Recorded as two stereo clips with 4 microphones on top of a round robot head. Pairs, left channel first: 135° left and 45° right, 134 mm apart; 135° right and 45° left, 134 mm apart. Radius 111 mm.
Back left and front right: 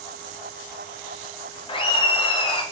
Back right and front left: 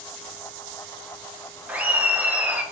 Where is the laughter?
120° left, 0.9 m.